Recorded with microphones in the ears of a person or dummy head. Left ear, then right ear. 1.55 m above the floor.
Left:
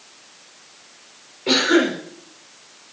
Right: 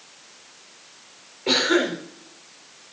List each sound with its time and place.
1.5 s a cough: 10° right (ahead or behind), 5.5 m